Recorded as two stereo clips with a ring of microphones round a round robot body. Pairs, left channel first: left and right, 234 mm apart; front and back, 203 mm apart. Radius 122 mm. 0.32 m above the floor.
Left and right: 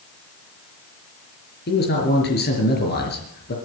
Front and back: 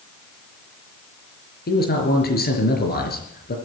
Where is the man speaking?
40° left, 5 m.